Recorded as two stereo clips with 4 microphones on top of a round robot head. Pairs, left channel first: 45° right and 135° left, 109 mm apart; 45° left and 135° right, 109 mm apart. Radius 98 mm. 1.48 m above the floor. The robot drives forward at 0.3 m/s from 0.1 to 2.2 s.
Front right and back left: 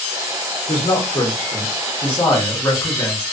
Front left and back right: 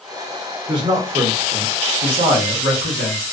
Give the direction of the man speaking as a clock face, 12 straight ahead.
3 o'clock.